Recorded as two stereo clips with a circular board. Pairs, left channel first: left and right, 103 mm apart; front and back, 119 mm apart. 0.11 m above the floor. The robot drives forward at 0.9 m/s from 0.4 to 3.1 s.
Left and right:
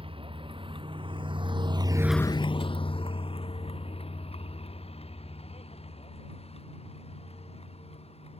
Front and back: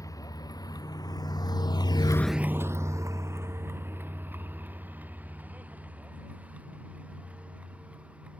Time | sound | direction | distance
0.0 | a vehicle | 60° right | ?